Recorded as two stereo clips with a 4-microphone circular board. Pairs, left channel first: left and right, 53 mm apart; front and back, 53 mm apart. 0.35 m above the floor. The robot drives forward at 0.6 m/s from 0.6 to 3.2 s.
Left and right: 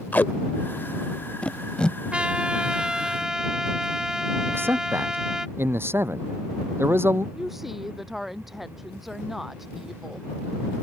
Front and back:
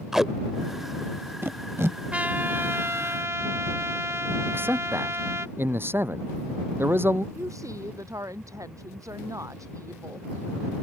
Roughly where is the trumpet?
Behind right.